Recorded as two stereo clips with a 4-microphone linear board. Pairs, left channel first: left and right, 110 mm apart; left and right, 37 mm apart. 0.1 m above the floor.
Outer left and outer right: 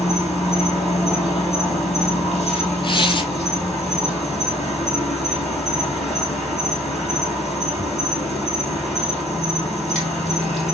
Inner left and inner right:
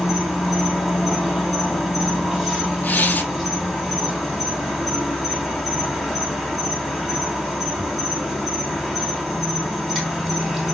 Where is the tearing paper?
50° left (ahead or behind), 0.5 m.